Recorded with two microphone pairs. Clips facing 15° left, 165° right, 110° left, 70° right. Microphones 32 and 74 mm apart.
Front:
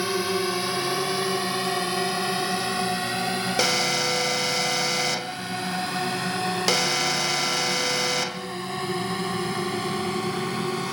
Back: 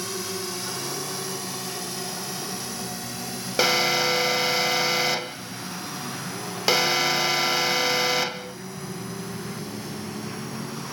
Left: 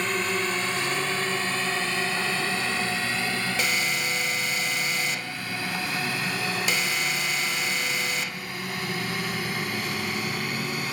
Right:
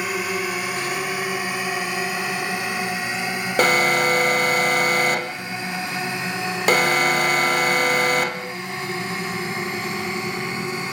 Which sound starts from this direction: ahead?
A drone, at 0.0 s.